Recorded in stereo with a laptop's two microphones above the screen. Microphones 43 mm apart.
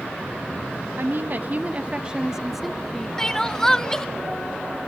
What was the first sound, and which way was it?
A woman speaking, 55° right (ahead or behind).